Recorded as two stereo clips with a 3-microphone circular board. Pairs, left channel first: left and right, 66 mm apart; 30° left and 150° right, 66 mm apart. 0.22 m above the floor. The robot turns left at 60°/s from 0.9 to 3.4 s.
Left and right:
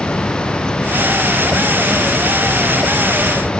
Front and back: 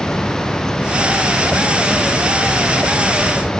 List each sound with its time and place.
Only background noise.